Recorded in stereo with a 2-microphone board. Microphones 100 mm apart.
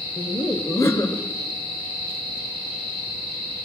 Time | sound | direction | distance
0.2 | laughter | 25° left (ahead or behind) | 1.2 m